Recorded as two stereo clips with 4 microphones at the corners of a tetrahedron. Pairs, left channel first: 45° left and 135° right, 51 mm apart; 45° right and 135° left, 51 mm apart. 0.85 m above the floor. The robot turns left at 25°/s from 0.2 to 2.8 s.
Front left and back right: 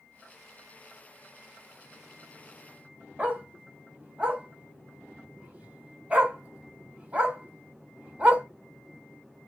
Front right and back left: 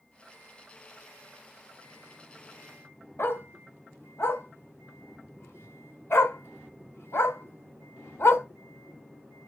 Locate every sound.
3.2 s a dog barking: 75° right, 1.1 m